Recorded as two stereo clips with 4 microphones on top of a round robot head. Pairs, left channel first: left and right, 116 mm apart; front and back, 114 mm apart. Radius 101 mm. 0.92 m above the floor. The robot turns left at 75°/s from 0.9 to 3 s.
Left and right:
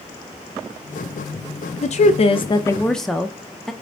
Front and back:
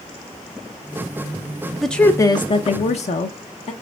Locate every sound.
1.8 s a woman speaking: 90° left, 0.6 m; by 3.7 s 5° left, 0.6 m